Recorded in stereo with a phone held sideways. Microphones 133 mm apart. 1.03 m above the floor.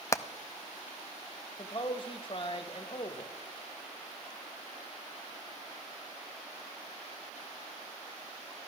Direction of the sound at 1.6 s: 40° left (ahead or behind).